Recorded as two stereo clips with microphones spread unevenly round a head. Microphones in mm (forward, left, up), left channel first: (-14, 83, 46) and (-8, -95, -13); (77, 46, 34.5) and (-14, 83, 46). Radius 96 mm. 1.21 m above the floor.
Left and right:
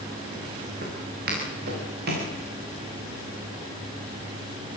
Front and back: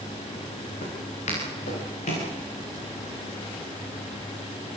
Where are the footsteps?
45° right, 9.5 m; by 2.3 s 50° right, 9 m.